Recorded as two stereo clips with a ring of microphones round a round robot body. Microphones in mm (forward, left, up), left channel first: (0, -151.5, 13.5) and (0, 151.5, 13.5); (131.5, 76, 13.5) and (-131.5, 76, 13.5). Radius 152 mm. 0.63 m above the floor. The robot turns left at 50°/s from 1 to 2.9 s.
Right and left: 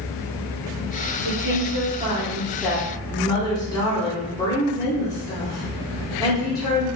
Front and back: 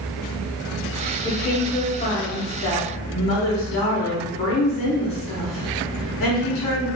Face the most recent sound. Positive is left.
turn(degrees=-15)